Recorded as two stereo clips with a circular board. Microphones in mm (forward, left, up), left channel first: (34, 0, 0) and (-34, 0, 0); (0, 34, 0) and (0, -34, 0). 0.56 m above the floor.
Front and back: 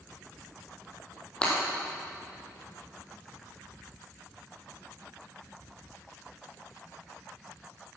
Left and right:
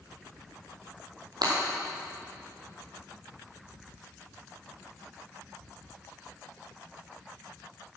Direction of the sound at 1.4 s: 75° right.